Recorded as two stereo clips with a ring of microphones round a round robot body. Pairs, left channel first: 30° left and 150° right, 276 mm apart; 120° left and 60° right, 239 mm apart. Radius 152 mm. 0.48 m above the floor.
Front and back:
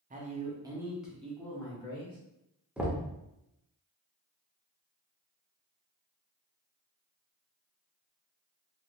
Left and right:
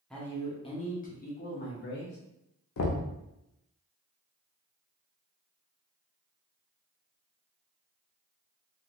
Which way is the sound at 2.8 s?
125° left.